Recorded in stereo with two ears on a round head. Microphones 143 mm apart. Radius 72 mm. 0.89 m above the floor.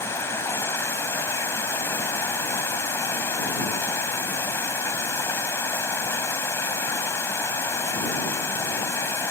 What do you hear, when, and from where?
0.0 s running water: 15° left (ahead or behind)